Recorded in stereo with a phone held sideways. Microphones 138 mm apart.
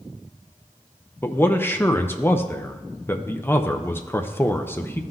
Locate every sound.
1.2 s a man speaking: 15° left (ahead or behind), 0.5 m